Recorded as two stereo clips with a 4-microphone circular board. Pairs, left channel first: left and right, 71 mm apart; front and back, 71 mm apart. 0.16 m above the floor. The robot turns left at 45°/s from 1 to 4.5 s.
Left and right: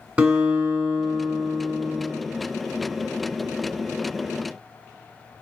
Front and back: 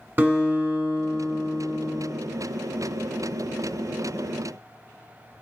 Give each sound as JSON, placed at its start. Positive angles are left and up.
{"t": 0.2, "sound": "a guitar", "azimuth_deg": -150, "distance_m": 1.3}